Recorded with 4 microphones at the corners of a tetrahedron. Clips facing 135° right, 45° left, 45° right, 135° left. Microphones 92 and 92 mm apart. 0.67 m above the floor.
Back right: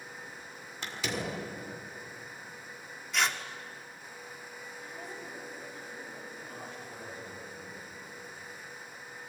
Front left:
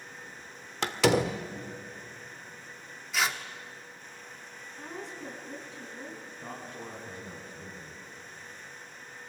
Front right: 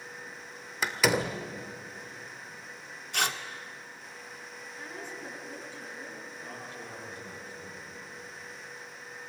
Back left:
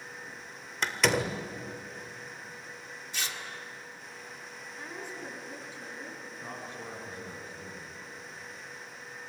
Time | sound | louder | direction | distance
0.8 | a door slam | front left 11 dB, front right 1 dB | 40° left | 1.5 m
3.1 | tearing paper | even, front right 8 dB | 40° right | 1.5 m
4.8 | a woman speaking | front left 4 dB, back left 1 dB | 60° left | 7.5 m
6.4 | a man speaking | front left 2 dB, back left 4 dB | 80° left | 6.5 m